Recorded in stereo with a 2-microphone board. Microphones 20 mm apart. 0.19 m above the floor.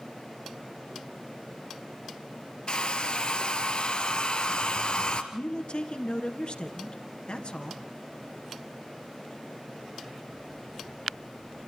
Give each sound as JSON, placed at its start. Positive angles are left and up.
{"t": 2.7, "sound": "a hair dryer", "side_deg": 50, "distance_m": 1.9}
{"t": 5.3, "sound": "a man speaking", "side_deg": 55, "distance_m": 2.0}